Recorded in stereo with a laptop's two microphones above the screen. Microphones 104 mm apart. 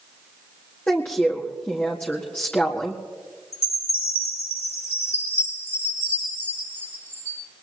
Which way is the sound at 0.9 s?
15° left (ahead or behind).